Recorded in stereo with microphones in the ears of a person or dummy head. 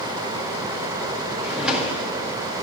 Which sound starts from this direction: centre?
A drawer, at 1.4 s.